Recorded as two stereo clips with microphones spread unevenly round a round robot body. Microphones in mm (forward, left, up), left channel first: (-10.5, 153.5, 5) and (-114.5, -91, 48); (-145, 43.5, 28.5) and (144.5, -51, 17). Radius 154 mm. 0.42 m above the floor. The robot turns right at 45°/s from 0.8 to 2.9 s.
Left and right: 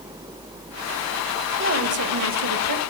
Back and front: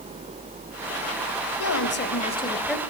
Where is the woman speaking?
160° right, 2.0 m; by 2.8 s 105° right, 2.0 m.